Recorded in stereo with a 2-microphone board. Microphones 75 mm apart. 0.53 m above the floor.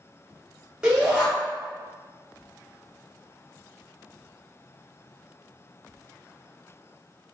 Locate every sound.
0.8 s a shout: 15° right (ahead or behind), 1.5 m